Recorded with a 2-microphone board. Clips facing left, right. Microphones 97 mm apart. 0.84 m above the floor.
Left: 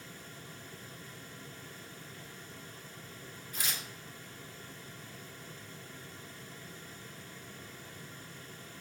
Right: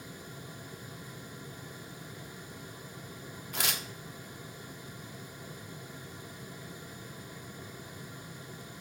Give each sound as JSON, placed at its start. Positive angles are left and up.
{"t": 3.5, "sound": "tearing paper", "side_deg": -75, "distance_m": 1.1}